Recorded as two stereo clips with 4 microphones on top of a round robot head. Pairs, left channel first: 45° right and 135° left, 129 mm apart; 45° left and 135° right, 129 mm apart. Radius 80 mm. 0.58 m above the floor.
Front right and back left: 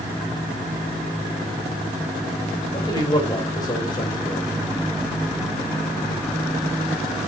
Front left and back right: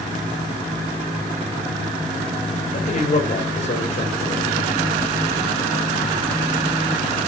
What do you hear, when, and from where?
2.7 s a man speaking: 15° left, 3 m